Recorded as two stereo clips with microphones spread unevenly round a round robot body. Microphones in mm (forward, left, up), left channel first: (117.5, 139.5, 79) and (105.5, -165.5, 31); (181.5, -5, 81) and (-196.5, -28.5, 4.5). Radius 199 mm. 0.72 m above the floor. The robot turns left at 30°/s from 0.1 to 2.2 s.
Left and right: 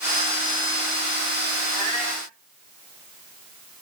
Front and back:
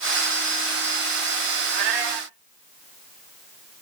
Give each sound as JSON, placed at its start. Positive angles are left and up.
{"t": 1.7, "sound": "a cat meowing", "azimuth_deg": 175, "distance_m": 1.5}